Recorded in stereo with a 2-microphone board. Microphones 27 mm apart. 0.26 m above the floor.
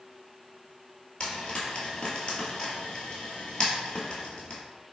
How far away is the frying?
About 1.2 m.